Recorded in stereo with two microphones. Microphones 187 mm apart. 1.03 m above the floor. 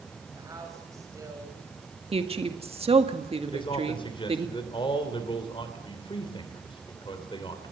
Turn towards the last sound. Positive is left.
turn(degrees=25)  # may be behind; listen again after turning